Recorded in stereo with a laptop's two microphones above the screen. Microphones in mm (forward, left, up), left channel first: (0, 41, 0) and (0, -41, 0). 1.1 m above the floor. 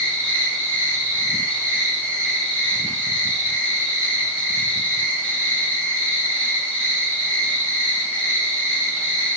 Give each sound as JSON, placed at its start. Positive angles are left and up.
{"t": 0.0, "sound": "an insect", "side_deg": 15, "distance_m": 1.9}